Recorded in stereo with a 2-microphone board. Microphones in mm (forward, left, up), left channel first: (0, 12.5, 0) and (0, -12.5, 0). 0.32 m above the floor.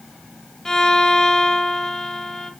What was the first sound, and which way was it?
A violin, 15° left (ahead or behind).